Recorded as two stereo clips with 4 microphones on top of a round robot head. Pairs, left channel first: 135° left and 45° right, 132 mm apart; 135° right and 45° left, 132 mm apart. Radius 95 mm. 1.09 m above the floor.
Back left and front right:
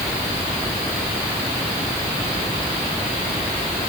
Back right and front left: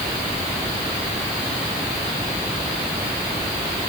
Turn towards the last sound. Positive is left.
No sound to turn to.